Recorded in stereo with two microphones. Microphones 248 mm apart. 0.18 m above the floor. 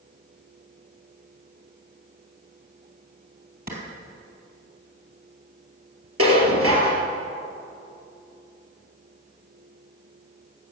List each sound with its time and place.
3.7 s a clap: 40° right (ahead or behind), 3.5 m
6.2 s dishes clattering: 65° right (ahead or behind), 3 m